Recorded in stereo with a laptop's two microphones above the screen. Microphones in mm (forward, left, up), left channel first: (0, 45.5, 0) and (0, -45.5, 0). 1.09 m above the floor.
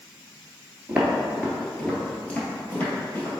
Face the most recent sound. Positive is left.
turn(degrees=25)  # may be behind; listen again after turning